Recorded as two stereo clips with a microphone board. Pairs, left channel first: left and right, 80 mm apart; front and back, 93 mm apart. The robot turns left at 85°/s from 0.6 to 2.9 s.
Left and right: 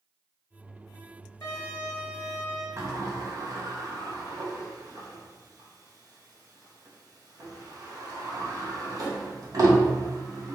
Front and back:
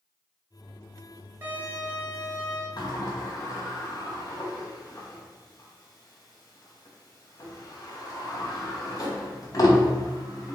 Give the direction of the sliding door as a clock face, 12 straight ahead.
1 o'clock.